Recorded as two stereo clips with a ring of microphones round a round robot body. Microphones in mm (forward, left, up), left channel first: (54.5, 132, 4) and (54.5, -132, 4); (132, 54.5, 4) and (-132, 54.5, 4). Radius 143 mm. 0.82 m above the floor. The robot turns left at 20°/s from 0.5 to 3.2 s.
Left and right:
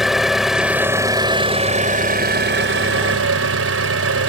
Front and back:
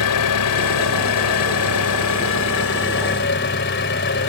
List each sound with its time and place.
0.0 s an engine running: straight ahead; by 4.3 s 55° right